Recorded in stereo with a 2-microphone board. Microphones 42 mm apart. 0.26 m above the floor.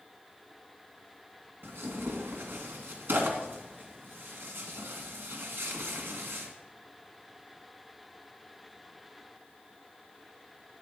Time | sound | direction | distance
1.6 | tearing paper | 60° right (ahead or behind) | 1.9 m